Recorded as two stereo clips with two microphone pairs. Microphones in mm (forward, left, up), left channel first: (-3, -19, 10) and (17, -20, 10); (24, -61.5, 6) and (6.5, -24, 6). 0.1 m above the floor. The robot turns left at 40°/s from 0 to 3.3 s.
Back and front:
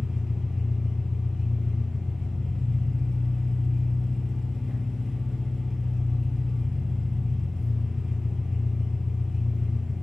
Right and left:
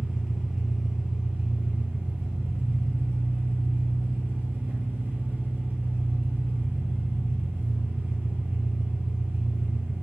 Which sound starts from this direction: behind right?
An engine running, at 0.0 s.